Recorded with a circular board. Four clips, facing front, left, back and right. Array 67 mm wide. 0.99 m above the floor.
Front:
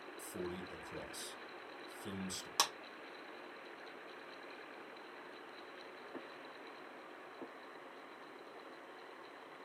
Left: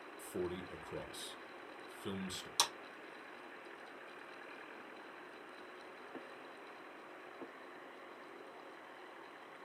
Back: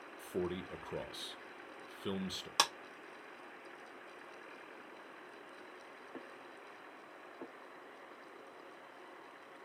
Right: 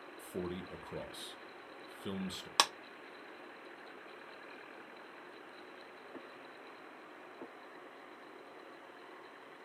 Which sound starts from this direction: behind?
A man speaking, at 0.2 s.